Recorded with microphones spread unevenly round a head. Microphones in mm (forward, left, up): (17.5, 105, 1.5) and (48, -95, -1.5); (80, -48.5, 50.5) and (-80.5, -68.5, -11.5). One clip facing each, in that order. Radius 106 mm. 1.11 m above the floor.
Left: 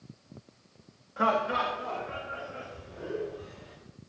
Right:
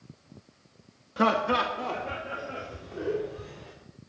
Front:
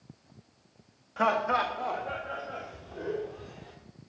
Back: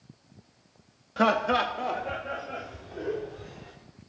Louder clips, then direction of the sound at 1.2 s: Right 3 dB, back 3 dB; 130° right.